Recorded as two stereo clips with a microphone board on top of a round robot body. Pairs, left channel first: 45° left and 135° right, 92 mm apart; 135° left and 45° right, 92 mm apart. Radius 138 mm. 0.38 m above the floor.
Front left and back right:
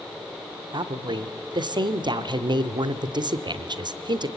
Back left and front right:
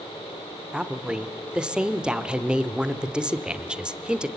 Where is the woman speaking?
125° right, 1.4 m.